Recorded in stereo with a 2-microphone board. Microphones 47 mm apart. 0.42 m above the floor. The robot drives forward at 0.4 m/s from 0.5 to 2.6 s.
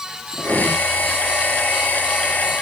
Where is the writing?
20° right (ahead or behind), 6 m.